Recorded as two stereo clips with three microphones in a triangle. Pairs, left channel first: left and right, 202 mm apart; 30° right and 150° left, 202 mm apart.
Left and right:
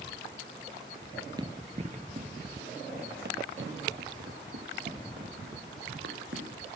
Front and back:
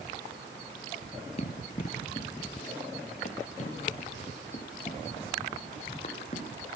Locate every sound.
1.4 s running footsteps: 35° right, 1.9 m; by 6.5 s 90° right, 6 m